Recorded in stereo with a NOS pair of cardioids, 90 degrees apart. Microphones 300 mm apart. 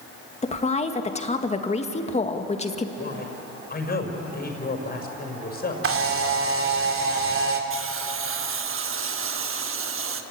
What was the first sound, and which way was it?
A woman speaking, 20° left.